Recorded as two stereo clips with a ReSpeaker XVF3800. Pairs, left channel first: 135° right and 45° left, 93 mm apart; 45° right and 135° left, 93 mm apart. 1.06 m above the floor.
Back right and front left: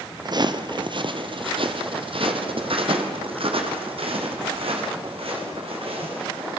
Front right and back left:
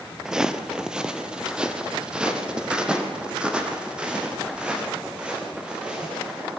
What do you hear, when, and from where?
0.2 s footsteps: 55° left, 1.4 m